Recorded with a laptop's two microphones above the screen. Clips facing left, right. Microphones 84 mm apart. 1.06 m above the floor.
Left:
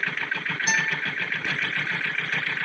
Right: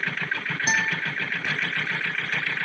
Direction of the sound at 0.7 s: 30° right (ahead or behind).